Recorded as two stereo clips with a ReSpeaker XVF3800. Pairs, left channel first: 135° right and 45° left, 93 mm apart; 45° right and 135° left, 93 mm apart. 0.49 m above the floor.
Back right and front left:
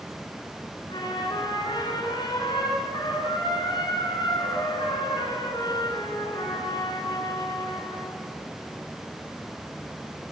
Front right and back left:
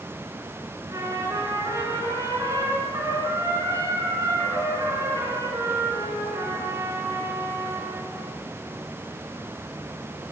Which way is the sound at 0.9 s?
170° right.